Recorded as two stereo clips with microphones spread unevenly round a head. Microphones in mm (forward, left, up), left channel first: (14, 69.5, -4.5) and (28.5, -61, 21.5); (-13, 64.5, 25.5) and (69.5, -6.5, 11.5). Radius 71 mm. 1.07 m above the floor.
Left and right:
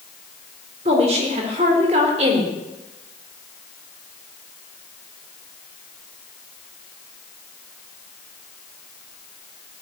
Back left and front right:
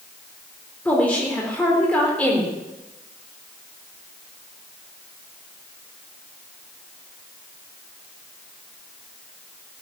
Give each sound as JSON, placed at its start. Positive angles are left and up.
{"t": 0.8, "sound": "a woman speaking", "azimuth_deg": -140, "distance_m": 3.5}